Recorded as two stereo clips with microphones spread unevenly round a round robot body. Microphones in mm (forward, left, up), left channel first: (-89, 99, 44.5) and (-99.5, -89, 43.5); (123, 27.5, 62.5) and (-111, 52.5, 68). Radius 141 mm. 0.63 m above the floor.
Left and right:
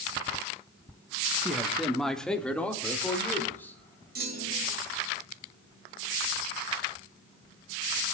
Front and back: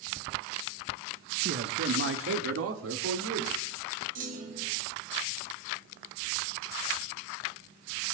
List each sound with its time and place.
1.4 s a man speaking: 175° right, 1.3 m; by 3.8 s 165° left, 3 m
4.2 s a clunk: 130° right, 2.5 m